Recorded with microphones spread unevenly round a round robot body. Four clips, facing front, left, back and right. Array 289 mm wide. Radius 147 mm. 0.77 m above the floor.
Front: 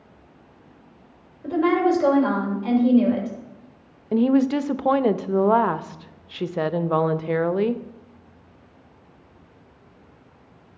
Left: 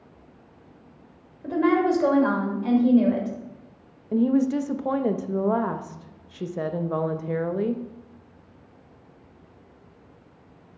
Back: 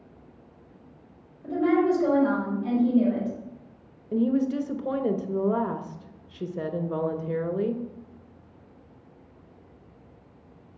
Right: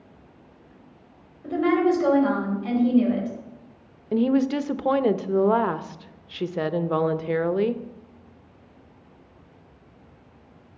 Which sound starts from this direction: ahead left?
A woman speaking, at 1.4 s.